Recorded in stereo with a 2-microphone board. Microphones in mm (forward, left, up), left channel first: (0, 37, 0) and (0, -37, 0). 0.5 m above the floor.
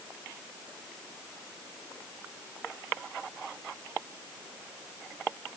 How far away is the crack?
No crack in this recording.